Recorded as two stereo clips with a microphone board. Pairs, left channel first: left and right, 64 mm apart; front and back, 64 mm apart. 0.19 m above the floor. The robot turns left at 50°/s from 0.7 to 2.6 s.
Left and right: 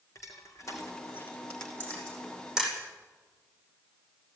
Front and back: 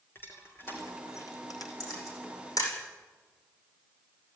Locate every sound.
0.1 s crushing: 55° left, 3.5 m; by 1.7 s 5° left, 3.5 m
1.8 s a camera shutter: 30° left, 9 m; by 2.7 s 10° right, 9 m